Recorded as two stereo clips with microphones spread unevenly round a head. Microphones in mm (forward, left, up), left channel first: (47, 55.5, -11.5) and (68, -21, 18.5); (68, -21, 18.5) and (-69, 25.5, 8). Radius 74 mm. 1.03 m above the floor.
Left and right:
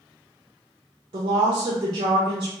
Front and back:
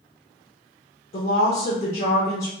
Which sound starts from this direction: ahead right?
A woman speaking, at 1.1 s.